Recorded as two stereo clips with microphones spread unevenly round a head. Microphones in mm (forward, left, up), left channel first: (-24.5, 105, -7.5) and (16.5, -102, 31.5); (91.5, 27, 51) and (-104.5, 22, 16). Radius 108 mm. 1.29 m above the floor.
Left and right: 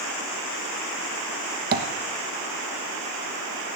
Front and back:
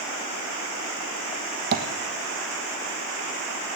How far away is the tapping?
About 1.1 m.